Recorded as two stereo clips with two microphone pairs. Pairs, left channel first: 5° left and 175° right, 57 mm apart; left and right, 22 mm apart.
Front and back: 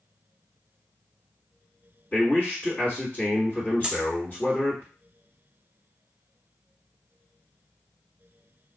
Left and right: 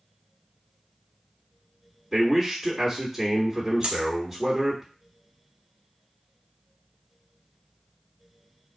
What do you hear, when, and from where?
2.1 s a man speaking: straight ahead, 1.7 m
3.8 s a dropped coin: 105° right, 0.9 m